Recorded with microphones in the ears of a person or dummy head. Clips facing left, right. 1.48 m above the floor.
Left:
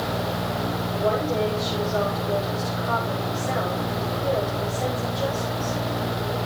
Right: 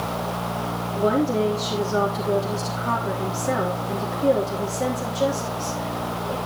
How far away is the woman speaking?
About 3.5 m.